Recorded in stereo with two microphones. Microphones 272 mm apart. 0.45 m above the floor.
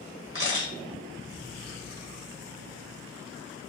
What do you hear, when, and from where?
0.3 s a camera shutter: 45° left (ahead or behind), 1.5 m